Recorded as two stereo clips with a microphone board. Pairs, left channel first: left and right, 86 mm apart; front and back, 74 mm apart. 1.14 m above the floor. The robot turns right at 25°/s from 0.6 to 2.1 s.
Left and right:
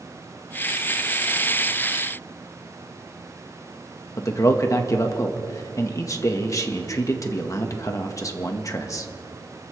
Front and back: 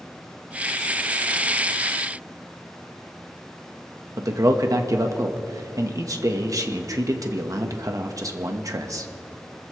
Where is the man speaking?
140° left, 1.4 m.